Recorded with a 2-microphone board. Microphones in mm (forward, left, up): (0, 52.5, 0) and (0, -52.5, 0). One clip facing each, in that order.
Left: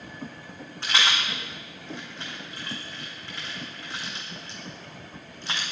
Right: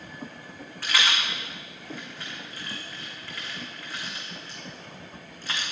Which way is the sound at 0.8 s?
25° left (ahead or behind).